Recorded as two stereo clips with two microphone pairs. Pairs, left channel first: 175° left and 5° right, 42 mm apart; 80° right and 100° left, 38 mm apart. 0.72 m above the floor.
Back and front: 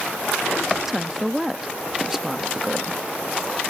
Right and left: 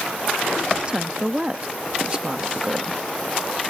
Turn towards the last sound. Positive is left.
turn(degrees=70)